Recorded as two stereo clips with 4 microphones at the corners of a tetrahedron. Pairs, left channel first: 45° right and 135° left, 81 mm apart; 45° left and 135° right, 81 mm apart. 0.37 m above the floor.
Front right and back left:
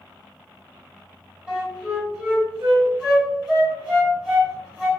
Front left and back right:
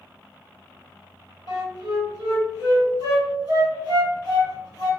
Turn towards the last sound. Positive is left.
turn(degrees=-145)